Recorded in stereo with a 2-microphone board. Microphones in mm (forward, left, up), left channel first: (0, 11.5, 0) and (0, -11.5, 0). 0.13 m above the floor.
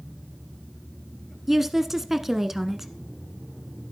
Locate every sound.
1.5 s a woman speaking: 15° right (ahead or behind), 1.0 m